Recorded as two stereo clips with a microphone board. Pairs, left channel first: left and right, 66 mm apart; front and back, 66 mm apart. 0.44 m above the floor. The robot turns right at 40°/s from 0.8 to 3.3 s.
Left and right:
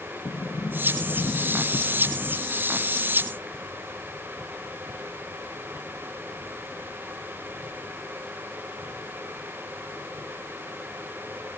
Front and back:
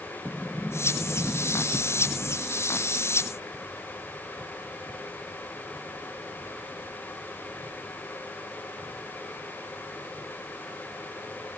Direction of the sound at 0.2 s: 85° left.